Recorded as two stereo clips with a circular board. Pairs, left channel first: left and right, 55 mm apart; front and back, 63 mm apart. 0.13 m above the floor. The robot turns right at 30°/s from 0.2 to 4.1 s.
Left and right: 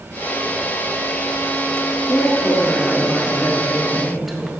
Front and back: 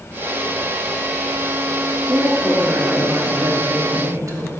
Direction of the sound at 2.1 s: 120° left.